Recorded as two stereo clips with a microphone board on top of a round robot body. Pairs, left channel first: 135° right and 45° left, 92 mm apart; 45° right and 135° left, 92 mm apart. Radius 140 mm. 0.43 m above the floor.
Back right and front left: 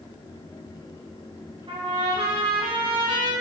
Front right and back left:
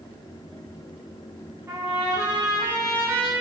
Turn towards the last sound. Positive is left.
turn(degrees=70)